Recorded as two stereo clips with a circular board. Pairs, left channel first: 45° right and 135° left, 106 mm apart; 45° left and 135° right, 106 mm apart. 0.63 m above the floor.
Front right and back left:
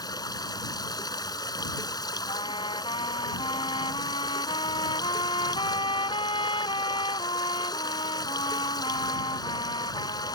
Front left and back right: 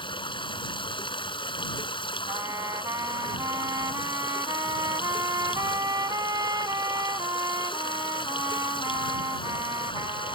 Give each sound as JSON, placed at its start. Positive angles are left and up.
{"t": 0.0, "sound": "running water", "azimuth_deg": 5}
{"t": 2.3, "sound": "a trumpet", "azimuth_deg": -80}